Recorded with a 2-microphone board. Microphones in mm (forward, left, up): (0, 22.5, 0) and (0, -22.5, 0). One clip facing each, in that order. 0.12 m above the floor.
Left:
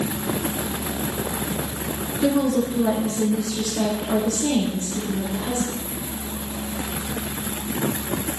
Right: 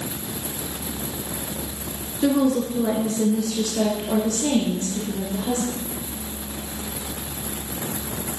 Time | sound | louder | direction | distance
2.2 | a woman speaking | right 1 dB | 5° right (ahead or behind) | 1.5 m